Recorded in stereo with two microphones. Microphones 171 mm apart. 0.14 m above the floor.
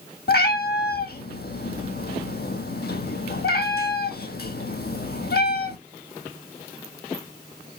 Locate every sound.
0.3 s a cat meowing: 70° left (ahead or behind), 0.7 m